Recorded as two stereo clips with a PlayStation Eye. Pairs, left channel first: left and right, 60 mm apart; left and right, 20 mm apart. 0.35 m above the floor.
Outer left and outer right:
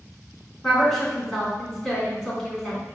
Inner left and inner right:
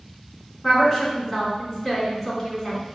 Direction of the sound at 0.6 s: 10° left (ahead or behind).